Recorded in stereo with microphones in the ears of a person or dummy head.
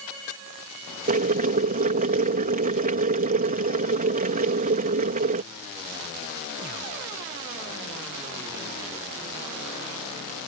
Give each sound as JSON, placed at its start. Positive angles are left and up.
{"t": 1.1, "sound": "boiling", "side_deg": -50}